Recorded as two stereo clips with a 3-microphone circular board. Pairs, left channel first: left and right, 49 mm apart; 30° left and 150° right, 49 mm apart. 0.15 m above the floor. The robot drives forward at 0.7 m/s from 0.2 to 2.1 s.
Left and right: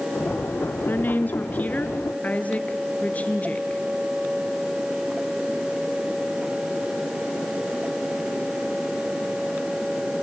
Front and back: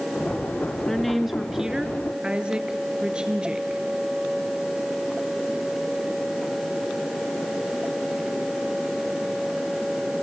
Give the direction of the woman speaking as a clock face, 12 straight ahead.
8 o'clock.